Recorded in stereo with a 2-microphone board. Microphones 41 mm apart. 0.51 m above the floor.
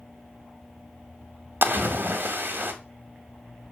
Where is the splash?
60° right (ahead or behind), 0.5 m.